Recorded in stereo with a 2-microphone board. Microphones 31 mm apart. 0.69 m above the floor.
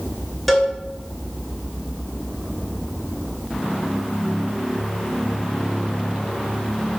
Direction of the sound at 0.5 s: Centre (ahead or behind).